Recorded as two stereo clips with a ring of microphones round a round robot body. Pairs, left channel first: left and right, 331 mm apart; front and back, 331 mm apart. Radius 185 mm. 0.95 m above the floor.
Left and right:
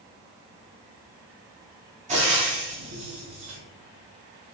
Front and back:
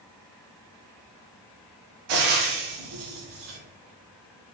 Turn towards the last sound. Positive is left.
turn(degrees=-160)